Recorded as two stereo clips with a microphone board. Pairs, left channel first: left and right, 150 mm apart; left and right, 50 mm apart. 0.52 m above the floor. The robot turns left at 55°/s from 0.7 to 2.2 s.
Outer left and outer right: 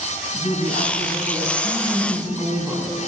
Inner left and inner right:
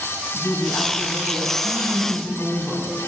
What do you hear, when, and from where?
0.3 s a woman speaking: 80° left, 4.5 m; by 2.9 s straight ahead, 4.5 m